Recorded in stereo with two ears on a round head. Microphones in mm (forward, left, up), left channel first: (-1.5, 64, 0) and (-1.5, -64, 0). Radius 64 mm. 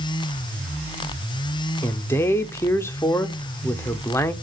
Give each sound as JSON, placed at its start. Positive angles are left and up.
{"t": 1.8, "sound": "a man speaking", "side_deg": 15, "distance_m": 0.7}